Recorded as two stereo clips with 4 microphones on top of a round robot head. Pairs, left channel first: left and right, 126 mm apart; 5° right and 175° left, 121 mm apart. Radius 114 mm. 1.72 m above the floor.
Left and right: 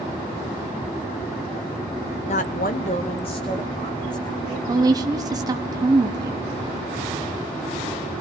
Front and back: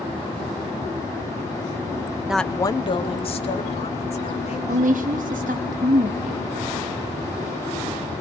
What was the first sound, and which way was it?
A woman speaking, 105° left.